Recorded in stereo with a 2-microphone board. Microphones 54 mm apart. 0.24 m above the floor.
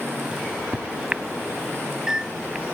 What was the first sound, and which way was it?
A microwave, 20° right (ahead or behind).